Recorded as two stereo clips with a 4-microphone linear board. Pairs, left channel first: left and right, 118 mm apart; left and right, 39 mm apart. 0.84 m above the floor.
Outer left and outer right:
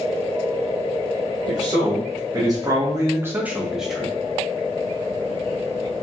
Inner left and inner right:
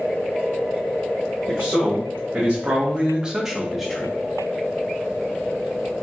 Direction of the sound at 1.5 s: 30° right (ahead or behind).